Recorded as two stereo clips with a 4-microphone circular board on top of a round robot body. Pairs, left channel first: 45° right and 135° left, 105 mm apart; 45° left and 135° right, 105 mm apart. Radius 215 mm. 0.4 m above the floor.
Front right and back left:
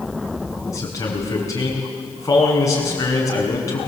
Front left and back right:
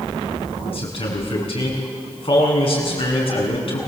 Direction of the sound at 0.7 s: 15° left.